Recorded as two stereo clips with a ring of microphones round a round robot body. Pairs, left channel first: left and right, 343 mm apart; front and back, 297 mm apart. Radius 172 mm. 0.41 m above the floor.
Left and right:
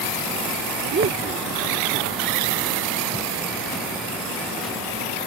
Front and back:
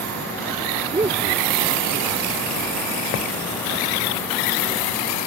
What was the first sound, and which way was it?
A man speaking, 120° right.